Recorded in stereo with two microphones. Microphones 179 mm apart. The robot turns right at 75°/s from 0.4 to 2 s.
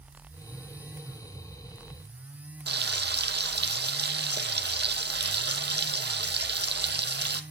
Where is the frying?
75° right (ahead or behind), 0.7 m.